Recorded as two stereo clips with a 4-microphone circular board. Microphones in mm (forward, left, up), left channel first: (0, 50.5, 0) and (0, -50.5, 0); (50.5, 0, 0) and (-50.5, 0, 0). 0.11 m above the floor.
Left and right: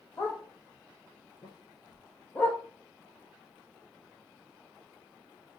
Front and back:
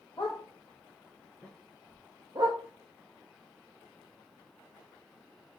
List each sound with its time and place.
0.2 s a dog barking: 30° left, 1.3 m; by 2.6 s 160° left, 0.8 m